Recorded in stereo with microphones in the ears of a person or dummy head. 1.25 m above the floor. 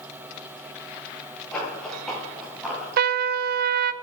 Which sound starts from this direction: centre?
Running footsteps, at 1.5 s.